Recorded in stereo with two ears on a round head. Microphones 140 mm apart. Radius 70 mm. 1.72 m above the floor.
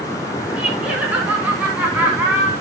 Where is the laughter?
10° right (ahead or behind), 4 m.